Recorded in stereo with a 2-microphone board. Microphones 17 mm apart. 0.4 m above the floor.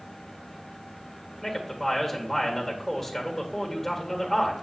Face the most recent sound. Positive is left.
turn(degrees=10)  # may be behind; listen again after turning